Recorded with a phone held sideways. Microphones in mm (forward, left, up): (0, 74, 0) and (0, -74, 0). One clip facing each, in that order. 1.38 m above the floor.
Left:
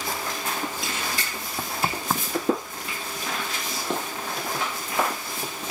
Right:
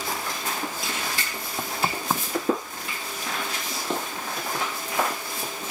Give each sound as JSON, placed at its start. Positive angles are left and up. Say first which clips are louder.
{"t": 1.6, "sound": "knocking", "louder": "even", "side_deg": -5}